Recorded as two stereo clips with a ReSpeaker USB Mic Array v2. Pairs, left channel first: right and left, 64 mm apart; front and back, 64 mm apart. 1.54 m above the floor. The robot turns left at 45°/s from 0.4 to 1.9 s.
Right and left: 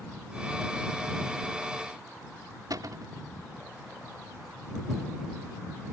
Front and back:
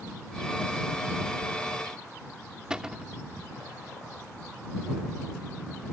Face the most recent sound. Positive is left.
turn(degrees=100)